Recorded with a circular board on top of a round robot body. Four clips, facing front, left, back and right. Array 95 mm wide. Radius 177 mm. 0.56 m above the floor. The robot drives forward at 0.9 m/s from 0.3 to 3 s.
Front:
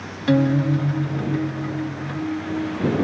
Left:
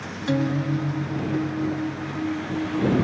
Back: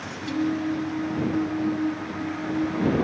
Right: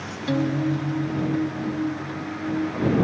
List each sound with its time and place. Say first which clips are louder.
0.3 s a guitar: right 1 dB, front 7 dB; 5° left